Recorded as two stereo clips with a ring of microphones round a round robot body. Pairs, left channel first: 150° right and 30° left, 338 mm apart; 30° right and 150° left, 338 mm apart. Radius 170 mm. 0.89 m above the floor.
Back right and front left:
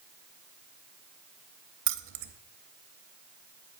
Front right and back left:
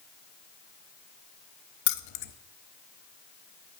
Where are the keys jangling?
10° right, 0.5 m.